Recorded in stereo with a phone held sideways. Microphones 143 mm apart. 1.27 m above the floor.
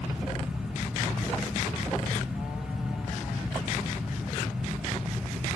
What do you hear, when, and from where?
0.0 s a fan: 5° right (ahead or behind), 0.7 m